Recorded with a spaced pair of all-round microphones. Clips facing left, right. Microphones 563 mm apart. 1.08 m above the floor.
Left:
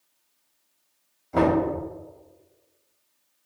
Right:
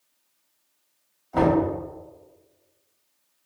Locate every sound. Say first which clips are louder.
1.3 s knocking: right 1 dB; 50° left (ahead or behind), 1.7 m